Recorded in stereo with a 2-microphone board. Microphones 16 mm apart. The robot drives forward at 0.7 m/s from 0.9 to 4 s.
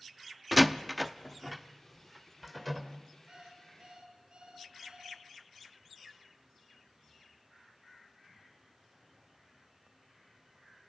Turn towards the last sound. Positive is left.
turn(degrees=-75)  # may be behind; listen again after turning